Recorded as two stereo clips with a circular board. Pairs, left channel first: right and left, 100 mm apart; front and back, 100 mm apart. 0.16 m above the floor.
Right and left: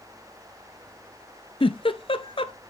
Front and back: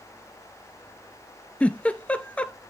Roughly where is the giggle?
Right.